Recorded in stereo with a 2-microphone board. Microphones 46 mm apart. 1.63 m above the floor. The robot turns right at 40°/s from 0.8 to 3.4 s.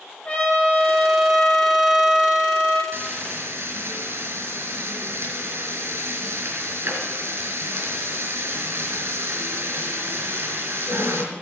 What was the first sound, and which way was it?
A trumpet, 145° left.